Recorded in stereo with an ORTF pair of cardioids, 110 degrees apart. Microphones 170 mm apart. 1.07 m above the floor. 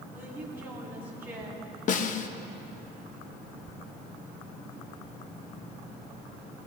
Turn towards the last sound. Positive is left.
turn(degrees=50)